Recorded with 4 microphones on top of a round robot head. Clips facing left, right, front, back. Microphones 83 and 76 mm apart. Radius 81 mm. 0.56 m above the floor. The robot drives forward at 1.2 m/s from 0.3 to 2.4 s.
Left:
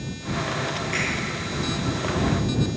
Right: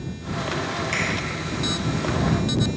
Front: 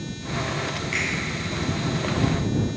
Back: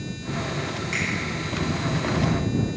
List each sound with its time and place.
0.9 s a finger snap: 105° right, 3 m; by 1.0 s 110° right, 3 m